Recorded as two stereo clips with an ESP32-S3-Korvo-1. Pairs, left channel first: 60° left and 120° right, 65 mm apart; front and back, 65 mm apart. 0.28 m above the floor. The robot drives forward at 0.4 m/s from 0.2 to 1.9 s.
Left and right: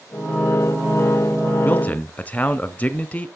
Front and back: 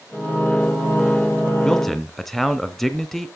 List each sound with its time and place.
1.6 s a man speaking: 70° left, 1.0 m; by 3.3 s 85° left, 1.0 m